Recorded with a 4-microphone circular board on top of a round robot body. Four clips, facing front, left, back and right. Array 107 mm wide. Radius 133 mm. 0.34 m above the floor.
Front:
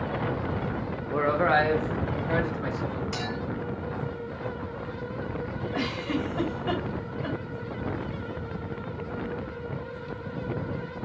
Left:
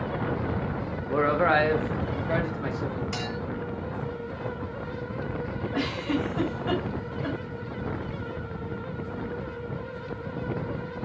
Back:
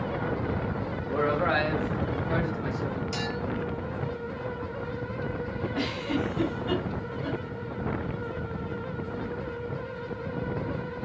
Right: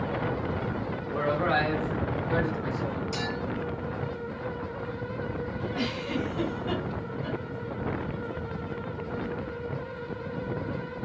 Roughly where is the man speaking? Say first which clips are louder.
Left 4 dB, front 3 dB; left.